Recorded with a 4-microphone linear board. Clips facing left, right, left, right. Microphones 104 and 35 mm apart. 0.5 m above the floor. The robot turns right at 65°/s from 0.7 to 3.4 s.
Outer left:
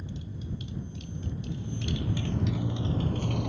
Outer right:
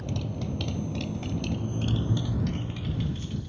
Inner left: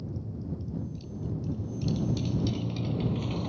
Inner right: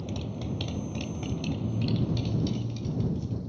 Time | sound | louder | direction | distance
0.0 | a motorcycle | outer right 8 dB, inner right 3 dB | 115° right | ?